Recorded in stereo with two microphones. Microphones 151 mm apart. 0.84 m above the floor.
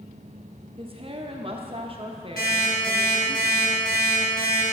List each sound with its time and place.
0.8 s a woman speaking: 40° right (ahead or behind), 0.6 m
2.4 s an alarm clock: 85° left, 2.5 m